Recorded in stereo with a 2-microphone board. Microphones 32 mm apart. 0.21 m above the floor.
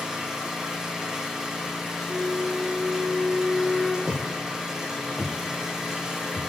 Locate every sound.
0.0 s an engine running: 20° right (ahead or behind), 4.5 m
2.1 s a flute: 40° right (ahead or behind), 4.5 m
4.1 s footsteps: 40° left (ahead or behind), 5.5 m; by 6.4 s 50° left (ahead or behind), 7 m